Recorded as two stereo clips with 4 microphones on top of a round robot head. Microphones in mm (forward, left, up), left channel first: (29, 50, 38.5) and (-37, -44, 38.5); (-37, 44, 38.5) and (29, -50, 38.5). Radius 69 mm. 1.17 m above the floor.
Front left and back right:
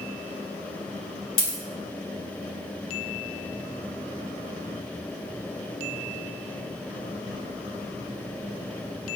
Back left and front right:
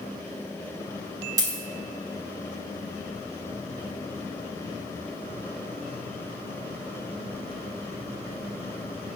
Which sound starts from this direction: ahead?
A dropped coin, at 1.4 s.